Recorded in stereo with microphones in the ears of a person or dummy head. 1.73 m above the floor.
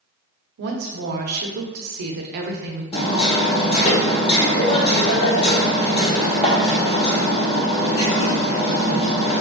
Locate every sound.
0.6 s a woman speaking: 50° right (ahead or behind), 0.5 m
2.9 s hammering: 30° left (ahead or behind), 0.7 m